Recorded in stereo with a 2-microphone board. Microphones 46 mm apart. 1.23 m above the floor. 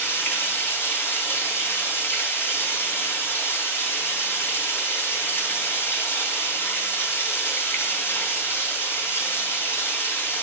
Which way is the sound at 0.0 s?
55° left (ahead or behind).